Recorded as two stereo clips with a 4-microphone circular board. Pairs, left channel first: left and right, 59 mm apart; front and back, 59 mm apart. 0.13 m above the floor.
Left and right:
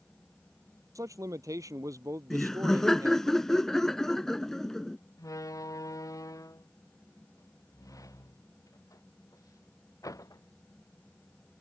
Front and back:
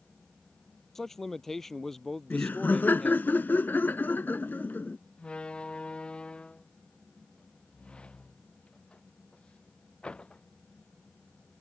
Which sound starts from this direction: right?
A man speaking, at 0.9 s.